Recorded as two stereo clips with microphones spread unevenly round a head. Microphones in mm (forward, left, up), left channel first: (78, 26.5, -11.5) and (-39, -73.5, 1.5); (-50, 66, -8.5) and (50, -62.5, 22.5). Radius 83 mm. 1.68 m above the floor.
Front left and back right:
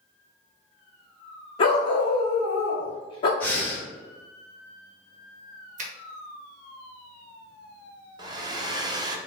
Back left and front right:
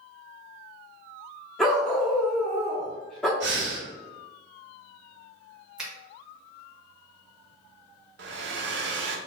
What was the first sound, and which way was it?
A dog barking, 25° left.